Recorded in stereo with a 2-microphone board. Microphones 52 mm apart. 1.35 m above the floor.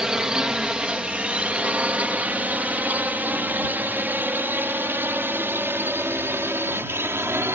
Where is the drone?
15° right (ahead or behind); by 7.6 s 55° right (ahead or behind).